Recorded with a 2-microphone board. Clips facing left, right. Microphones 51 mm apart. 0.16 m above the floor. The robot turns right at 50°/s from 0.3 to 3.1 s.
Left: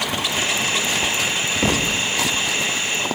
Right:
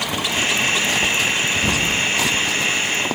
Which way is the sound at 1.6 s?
55° left (ahead or behind).